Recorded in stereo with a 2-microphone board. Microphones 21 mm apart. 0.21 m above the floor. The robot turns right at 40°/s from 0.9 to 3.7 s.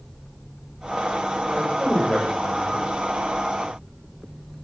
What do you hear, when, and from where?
1.5 s a man speaking: 100° left, 7.5 m; by 2.9 s 155° left, 7.5 m